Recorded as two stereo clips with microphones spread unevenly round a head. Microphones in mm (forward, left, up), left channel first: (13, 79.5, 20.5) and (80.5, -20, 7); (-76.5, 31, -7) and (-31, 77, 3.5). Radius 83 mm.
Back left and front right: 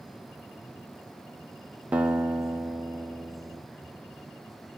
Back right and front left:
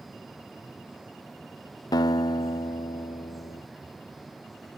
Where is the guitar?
135° right, 0.6 m.